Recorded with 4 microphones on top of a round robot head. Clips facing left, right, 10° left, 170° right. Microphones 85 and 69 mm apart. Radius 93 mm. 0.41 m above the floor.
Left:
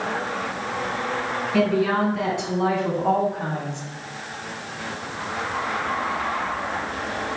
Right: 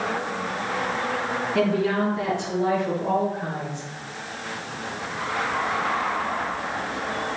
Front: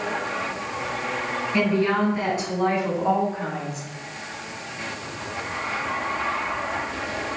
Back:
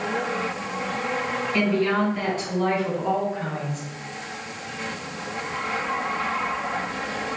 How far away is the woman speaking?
About 4.5 m.